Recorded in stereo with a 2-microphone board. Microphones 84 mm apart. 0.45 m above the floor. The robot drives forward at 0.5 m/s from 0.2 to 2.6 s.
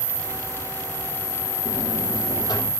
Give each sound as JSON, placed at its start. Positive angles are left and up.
{"t": 1.6, "sound": "a buzzer", "side_deg": 65, "distance_m": 7.5}